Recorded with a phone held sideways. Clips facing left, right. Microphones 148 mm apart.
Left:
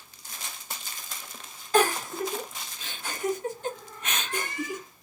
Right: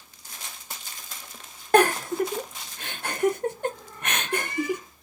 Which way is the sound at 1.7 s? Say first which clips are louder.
Right 4 dB; 60° right (ahead or behind).